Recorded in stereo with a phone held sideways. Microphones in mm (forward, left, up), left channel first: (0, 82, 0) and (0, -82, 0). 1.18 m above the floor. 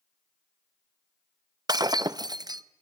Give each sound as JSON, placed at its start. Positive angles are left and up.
{"t": 1.7, "sound": "breaking glass", "side_deg": -25, "distance_m": 0.5}